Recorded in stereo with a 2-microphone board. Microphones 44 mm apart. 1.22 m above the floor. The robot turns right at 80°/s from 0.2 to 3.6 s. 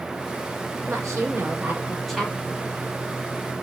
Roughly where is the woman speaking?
Right.